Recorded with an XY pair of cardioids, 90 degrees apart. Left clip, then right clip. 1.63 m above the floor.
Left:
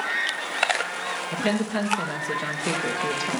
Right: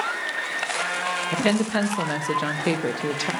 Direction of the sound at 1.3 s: 45° right.